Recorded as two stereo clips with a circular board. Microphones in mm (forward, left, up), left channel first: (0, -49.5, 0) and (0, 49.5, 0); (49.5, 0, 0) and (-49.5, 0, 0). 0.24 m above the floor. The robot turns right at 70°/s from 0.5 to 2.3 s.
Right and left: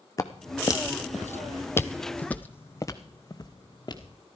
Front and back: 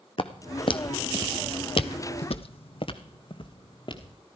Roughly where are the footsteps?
Ahead right.